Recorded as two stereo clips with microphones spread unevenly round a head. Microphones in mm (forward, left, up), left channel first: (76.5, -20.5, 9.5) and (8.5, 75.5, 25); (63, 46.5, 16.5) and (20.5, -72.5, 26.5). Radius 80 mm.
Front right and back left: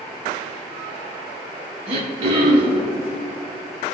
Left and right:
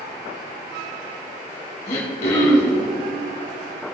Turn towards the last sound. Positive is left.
turn(degrees=115)